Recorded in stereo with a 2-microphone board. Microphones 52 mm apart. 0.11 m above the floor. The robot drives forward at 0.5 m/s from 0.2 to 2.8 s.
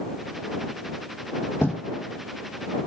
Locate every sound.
1.6 s writing: 55° left (ahead or behind), 1.5 m